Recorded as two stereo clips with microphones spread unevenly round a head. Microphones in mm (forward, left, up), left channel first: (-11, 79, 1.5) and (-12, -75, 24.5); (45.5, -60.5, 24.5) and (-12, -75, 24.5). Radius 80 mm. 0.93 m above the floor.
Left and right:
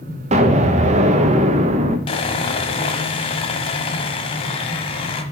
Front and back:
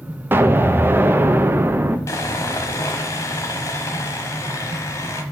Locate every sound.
0.3 s an explosion: 130° right, 0.9 m
2.1 s sawing: 35° left, 1.0 m